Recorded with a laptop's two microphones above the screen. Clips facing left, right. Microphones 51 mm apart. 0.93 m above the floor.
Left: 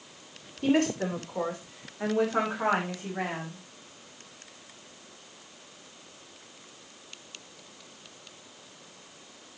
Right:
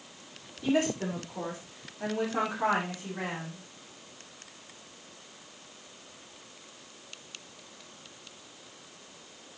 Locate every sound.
0.6 s a woman speaking: 55° left (ahead or behind), 2.5 m; by 3.6 s 20° left (ahead or behind), 5 m